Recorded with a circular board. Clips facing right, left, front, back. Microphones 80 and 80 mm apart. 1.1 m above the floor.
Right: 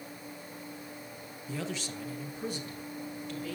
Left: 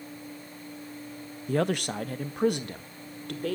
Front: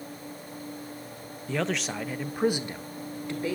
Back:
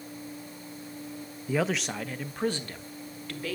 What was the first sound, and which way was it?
A man speaking, 105° left.